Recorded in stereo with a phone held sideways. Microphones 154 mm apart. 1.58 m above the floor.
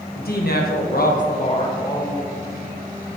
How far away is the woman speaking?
About 1.6 m.